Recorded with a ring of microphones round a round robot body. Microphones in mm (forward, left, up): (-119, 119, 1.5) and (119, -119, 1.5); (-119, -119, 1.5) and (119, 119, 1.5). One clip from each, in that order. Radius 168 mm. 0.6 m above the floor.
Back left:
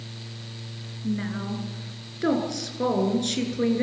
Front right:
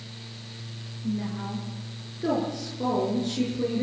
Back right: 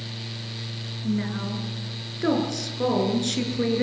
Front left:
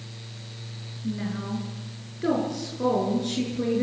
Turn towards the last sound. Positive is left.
turn(degrees=175)